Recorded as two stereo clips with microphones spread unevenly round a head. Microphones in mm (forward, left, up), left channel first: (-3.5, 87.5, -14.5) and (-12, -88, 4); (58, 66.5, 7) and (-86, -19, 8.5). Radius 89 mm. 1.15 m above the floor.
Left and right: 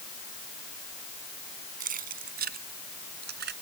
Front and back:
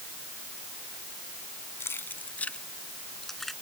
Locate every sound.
1.8 s keys jangling: 50° right; by 3.5 s 60° right